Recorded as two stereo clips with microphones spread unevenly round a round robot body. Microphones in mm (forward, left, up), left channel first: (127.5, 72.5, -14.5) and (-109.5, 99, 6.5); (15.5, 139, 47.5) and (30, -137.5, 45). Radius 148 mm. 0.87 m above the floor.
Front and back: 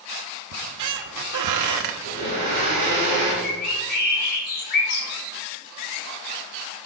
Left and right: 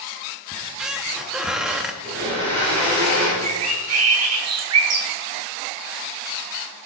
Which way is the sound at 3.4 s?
65° right.